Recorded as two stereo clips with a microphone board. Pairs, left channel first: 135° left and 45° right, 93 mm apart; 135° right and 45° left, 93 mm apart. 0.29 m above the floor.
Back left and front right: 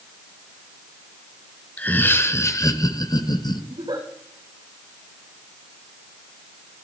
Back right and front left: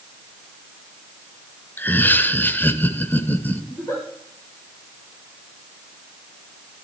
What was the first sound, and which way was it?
Laughter, 175° right.